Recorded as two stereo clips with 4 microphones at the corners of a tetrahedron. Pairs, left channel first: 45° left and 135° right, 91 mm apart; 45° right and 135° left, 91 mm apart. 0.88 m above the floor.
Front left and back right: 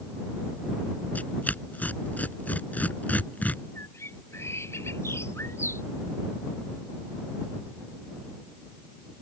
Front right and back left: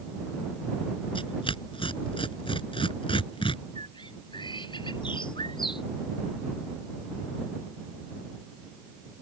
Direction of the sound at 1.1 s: 30° right.